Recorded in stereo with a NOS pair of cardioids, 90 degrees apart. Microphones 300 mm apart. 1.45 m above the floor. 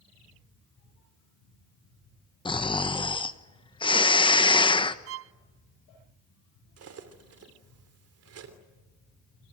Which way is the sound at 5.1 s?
50° right.